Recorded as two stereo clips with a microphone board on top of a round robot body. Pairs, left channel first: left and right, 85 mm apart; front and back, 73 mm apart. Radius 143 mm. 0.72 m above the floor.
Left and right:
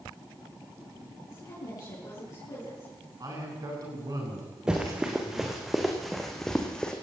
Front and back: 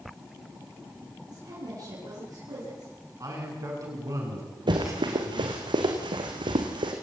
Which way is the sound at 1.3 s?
140° left.